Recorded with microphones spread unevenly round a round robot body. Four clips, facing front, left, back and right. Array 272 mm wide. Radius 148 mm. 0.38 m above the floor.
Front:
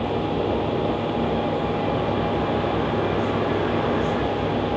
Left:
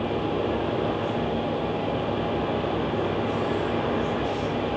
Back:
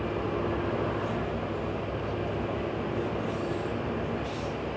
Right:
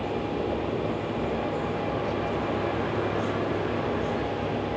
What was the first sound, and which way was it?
Only background noise.